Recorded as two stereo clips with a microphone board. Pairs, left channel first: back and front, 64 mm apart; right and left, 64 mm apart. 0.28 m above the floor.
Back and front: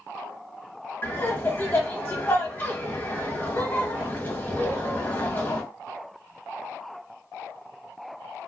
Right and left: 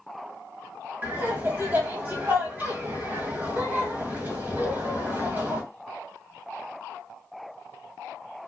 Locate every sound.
1.0 s laughter: 135° left, 1.5 m